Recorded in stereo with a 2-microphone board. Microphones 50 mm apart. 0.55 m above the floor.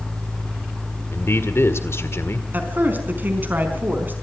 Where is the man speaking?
60° left (ahead or behind), 1.8 m.